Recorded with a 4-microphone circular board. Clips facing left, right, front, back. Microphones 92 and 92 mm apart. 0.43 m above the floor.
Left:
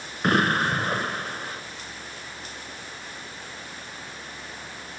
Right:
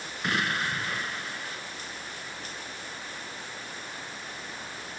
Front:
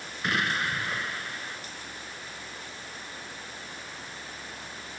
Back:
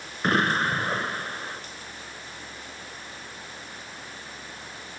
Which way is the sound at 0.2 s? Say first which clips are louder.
Left 8 dB, back 6 dB; 130° left.